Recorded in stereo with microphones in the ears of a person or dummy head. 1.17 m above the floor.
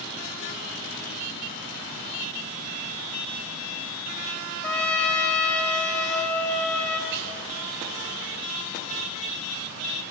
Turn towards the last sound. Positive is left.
turn(degrees=-50)  # may be behind; listen again after turning